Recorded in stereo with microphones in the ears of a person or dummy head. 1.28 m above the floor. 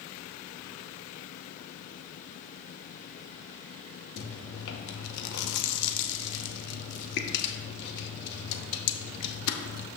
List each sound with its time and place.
4.2 s chewing: 65° left (ahead or behind), 1.0 m